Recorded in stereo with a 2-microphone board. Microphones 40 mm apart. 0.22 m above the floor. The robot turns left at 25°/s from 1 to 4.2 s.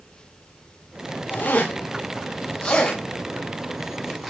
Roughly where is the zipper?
Left.